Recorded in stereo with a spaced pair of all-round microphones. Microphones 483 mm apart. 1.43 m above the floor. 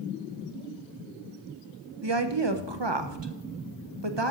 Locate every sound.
2.0 s a woman speaking: 60° right (ahead or behind), 1.3 m